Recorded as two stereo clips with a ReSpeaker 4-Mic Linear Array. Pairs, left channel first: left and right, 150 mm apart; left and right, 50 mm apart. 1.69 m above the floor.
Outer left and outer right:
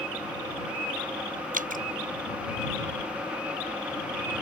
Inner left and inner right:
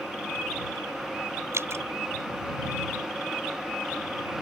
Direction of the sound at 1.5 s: 65° right (ahead or behind).